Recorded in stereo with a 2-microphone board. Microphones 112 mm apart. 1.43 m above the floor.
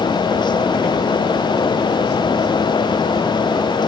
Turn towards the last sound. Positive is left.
No sound to turn to.